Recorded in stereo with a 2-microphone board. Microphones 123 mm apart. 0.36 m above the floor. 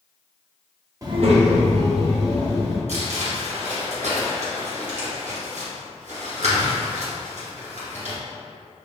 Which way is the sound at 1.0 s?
25° right (ahead or behind).